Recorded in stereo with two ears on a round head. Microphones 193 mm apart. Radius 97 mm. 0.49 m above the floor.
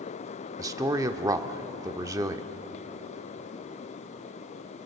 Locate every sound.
0.6 s a man speaking: 15° right (ahead or behind), 1.0 m